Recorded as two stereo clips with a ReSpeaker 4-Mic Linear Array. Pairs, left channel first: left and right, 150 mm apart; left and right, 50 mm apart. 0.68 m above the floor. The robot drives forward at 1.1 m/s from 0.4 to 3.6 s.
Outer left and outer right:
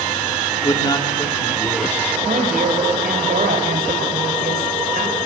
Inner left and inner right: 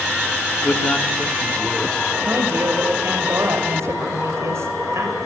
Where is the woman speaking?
60° right (ahead or behind), 3 m; by 5.2 s 75° right (ahead or behind), 2.5 m.